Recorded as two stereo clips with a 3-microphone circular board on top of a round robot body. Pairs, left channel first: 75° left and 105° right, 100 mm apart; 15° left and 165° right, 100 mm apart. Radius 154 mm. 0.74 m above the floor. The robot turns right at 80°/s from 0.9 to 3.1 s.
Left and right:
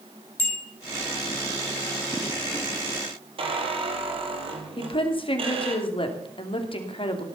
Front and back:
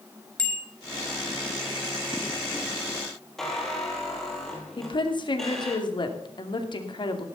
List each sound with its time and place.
0.4 s a bicycle bell: 95° left, 4 m
3.4 s a squeak: 75° right, 2.5 m
4.8 s a woman speaking: 50° left, 2.5 m